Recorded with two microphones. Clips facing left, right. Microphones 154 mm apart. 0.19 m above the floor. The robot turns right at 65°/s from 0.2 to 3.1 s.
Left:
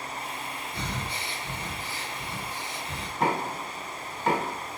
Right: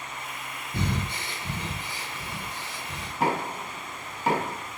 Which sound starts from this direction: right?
Breathing, at 0.7 s.